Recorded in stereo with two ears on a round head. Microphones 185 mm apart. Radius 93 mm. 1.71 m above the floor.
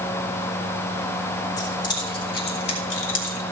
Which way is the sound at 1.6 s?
20° left (ahead or behind).